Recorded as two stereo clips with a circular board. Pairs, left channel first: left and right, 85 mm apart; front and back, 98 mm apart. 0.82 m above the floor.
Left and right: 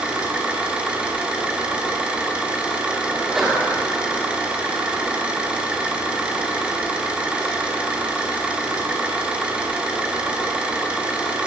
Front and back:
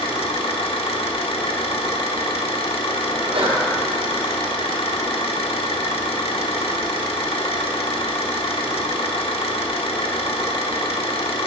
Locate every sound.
0.0 s an engine running: 15° right, 1.3 m
3.1 s a sneeze: 175° right, 3 m